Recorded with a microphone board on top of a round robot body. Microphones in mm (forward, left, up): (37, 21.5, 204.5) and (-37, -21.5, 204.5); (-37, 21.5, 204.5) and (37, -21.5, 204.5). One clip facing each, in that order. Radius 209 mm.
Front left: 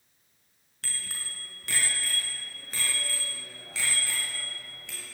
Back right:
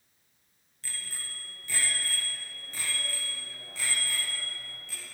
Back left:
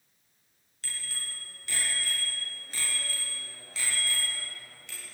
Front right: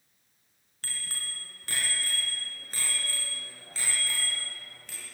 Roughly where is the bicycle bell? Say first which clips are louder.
Front left 2 dB, front right 1 dB; ahead.